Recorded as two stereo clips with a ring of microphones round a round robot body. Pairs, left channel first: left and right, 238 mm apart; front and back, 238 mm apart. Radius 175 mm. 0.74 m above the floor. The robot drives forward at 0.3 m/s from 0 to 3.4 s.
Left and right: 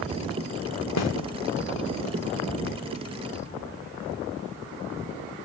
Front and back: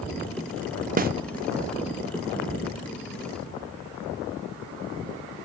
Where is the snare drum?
125° left, 0.5 m; by 1.1 s 130° left, 0.5 m.